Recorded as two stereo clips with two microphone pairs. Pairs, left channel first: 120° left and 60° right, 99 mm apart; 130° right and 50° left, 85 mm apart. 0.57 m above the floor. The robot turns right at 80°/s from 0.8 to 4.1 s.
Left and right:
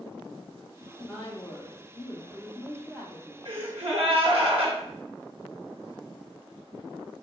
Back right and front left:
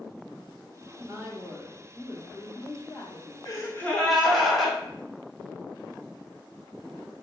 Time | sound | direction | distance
0.8 | a woman speaking | 45° left | 0.8 m
3.5 | a gasp | 95° right | 0.8 m